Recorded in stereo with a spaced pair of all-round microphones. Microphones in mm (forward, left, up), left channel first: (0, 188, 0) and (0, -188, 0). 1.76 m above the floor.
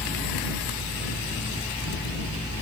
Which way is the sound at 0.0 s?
5° right (ahead or behind).